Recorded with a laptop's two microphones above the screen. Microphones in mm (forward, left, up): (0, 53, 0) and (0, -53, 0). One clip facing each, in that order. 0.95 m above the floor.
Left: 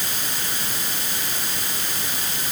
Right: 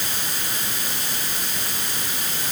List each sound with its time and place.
Only background noise.